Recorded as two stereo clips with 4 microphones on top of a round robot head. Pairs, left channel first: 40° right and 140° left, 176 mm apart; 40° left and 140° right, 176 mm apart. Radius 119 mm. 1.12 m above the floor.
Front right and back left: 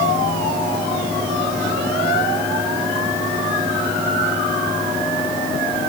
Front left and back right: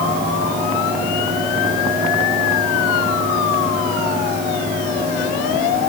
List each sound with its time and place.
Only background noise.